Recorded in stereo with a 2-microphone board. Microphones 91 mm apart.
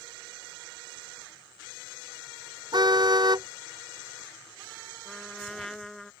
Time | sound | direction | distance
2.7 | a car horn | 50° right (ahead or behind) | ?
5.0 | a trumpet | 5° left (ahead or behind) | ?